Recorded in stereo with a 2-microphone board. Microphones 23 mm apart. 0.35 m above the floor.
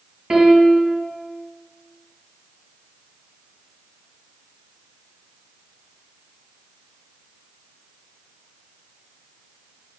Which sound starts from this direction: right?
A piano, at 0.3 s.